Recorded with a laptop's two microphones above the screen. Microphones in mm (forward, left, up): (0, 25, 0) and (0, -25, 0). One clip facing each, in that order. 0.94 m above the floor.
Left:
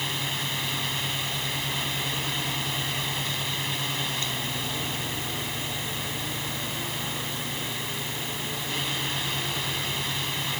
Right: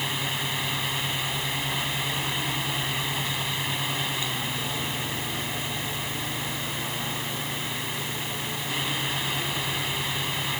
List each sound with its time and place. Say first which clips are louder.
0.0 s a fan: right 1 dB; 10° right (ahead or behind)